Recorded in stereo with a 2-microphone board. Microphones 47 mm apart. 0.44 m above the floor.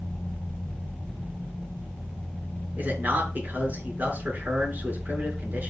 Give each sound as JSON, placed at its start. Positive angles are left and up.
{"t": 2.8, "sound": "a man speaking", "side_deg": -35, "distance_m": 7.0}